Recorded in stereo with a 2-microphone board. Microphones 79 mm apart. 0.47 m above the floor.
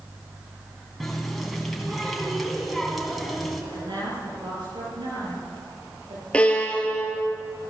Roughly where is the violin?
Centre.